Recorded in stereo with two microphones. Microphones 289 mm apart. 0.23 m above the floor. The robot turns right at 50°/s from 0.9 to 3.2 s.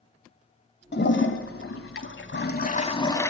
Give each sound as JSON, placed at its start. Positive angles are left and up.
{"t": 0.9, "sound": "a toilet flushing", "azimuth_deg": 50, "distance_m": 0.9}